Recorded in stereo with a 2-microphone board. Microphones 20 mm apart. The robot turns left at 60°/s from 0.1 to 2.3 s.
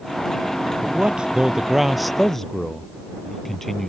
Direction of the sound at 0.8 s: 110° right.